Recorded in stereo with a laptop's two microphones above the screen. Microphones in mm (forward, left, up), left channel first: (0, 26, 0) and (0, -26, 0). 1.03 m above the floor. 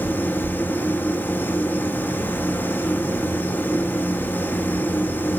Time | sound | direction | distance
0.0 | a machine running | 40° left (ahead or behind) | 0.8 m